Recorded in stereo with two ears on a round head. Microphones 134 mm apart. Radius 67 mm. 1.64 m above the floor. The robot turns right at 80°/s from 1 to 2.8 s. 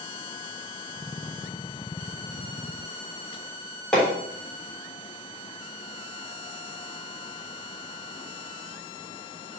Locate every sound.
3.9 s hammering: 5° left (ahead or behind), 3.5 m